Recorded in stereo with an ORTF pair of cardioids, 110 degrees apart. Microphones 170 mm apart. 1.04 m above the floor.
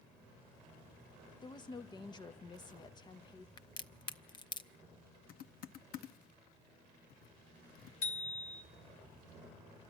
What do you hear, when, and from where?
1.4 s a woman speaking: 25° left, 0.8 m
3.6 s a crack: 25° left, 0.7 m
5.3 s typing on a keyboard: 65° left, 0.7 m
8.0 s a bicycle bell: 65° left, 2 m